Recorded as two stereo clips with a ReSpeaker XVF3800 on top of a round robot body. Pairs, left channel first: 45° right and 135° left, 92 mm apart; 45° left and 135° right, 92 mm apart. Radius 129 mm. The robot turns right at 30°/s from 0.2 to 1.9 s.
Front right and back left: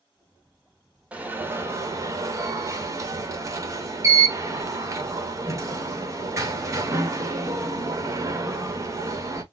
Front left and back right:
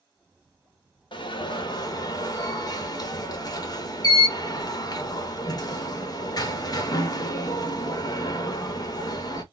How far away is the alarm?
About 1.0 m.